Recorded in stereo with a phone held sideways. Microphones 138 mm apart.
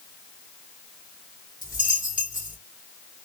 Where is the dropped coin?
70° left (ahead or behind), 2.5 m.